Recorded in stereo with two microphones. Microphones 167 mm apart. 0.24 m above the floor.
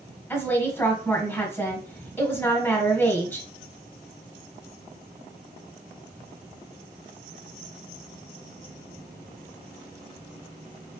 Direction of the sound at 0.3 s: 10° left (ahead or behind).